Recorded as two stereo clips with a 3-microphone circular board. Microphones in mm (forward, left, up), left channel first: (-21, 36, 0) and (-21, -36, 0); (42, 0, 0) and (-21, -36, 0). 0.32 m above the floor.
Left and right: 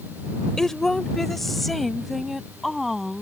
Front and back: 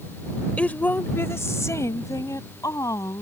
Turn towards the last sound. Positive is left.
turn(degrees=-5)